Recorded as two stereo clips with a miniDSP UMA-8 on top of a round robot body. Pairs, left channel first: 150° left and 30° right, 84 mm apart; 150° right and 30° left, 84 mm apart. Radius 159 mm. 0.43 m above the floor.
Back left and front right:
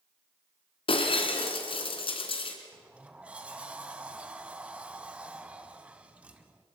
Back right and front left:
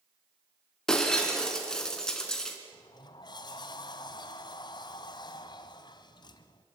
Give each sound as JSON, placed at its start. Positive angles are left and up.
{"t": 0.9, "sound": "breaking glass", "azimuth_deg": 125, "distance_m": 2.5}
{"t": 2.7, "sound": "a sliding door", "azimuth_deg": -105, "distance_m": 0.7}